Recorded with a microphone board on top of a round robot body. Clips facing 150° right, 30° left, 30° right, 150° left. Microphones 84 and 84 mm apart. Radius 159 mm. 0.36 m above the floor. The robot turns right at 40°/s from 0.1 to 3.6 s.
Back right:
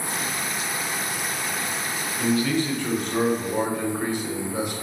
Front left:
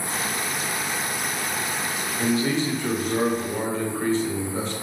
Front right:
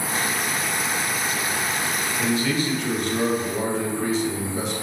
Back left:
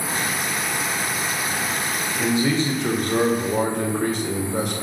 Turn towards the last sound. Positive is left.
turn(degrees=135)